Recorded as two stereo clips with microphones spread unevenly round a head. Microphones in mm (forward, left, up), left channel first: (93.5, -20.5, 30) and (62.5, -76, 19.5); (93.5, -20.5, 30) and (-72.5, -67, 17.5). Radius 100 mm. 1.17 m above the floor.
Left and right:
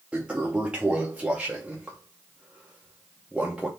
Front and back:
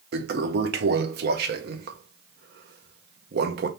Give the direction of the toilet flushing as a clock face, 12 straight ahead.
7 o'clock.